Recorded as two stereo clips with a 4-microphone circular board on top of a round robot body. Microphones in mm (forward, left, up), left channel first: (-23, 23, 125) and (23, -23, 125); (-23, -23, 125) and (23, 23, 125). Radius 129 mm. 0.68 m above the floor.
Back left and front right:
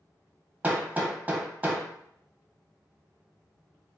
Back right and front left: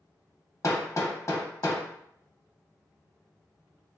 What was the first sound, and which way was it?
Hammering, 110° right.